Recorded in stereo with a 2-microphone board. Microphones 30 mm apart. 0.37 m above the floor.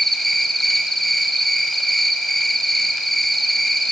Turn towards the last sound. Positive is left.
turn(degrees=5)  # may be behind; listen again after turning